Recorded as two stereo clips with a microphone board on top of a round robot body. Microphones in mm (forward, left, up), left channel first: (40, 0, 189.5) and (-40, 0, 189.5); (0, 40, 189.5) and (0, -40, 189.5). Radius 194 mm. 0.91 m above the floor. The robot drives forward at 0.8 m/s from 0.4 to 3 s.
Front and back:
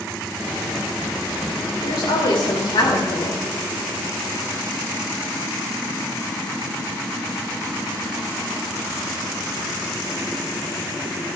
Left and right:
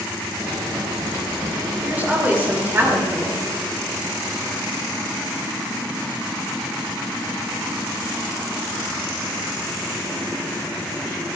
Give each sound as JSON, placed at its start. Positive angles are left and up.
{"t": 1.8, "sound": "a woman speaking", "azimuth_deg": -20, "distance_m": 3.5}